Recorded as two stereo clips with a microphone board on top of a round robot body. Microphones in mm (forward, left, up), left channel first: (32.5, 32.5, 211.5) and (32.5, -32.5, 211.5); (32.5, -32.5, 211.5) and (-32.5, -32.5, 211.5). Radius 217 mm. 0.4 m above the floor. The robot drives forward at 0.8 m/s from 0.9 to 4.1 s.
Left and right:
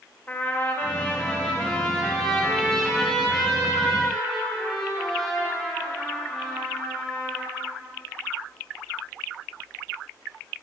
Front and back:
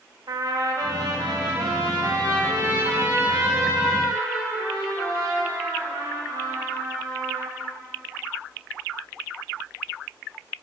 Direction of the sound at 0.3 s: 150° left.